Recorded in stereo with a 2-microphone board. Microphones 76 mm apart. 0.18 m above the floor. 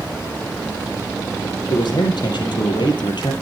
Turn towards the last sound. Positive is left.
turn(degrees=75)  # may be behind; listen again after turning